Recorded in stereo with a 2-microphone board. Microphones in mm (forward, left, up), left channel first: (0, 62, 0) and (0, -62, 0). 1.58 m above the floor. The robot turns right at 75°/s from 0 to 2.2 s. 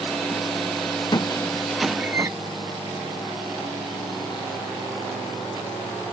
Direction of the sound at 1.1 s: 35° left (ahead or behind).